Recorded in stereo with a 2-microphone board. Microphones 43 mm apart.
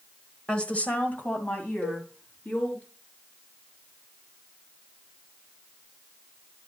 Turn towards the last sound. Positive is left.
turn(degrees=50)  # may be behind; listen again after turning